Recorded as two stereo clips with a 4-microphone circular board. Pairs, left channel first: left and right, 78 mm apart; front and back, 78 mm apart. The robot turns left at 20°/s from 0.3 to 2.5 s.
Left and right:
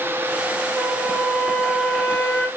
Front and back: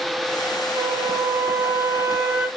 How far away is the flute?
About 0.5 m.